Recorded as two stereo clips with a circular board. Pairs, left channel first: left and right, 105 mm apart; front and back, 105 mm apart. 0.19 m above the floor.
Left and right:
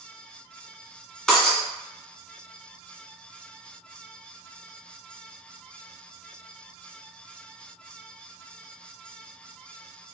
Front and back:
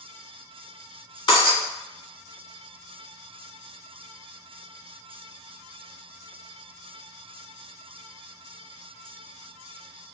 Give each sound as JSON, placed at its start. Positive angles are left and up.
{"t": 1.3, "sound": "breaking glass", "azimuth_deg": 10, "distance_m": 1.1}